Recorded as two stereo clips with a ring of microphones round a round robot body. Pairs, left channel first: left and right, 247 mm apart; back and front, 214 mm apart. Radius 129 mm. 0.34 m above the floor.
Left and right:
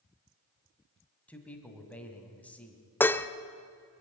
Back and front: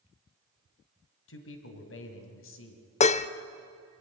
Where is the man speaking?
175° left, 2 m.